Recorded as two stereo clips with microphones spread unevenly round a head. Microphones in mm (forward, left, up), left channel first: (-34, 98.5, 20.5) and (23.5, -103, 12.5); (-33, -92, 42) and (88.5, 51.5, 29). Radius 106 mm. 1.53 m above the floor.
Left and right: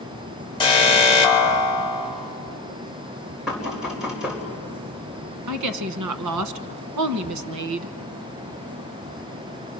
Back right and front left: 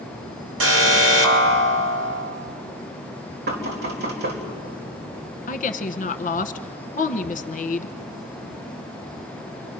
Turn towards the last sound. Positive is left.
turn(degrees=-80)